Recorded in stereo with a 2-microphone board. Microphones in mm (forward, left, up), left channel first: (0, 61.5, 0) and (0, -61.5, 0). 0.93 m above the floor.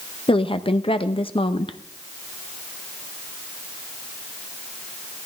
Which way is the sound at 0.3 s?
45° left (ahead or behind).